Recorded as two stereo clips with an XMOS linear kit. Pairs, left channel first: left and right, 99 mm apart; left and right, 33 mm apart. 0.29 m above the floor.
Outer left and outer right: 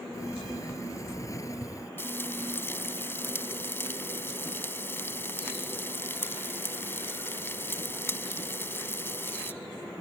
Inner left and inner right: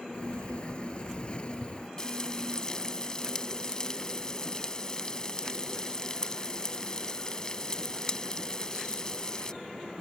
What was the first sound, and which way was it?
A sliding door, 35° left (ahead or behind).